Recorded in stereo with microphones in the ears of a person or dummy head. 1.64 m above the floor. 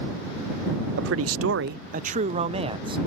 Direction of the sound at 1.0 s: 65° right (ahead or behind).